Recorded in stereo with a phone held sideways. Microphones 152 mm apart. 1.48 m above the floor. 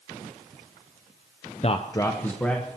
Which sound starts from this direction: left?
A man speaking, at 1.6 s.